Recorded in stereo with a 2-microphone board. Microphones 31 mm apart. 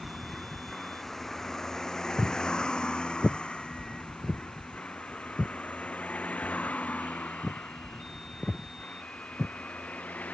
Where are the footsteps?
60° left (ahead or behind); by 9.5 s 35° left (ahead or behind).